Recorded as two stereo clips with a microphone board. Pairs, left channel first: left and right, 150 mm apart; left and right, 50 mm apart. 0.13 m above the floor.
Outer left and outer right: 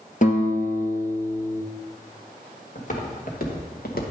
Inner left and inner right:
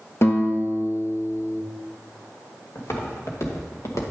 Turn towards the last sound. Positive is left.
turn(degrees=80)